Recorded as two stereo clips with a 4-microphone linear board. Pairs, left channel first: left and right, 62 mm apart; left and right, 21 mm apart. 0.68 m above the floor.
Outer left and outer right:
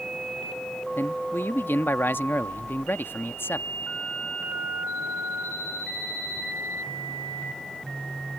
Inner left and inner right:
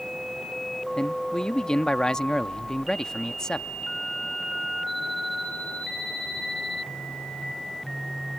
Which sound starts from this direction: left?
A man speaking, at 1.0 s.